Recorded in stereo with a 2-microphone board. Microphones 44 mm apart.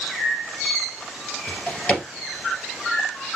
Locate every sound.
1.5 s a drawer: 25° left (ahead or behind), 2 m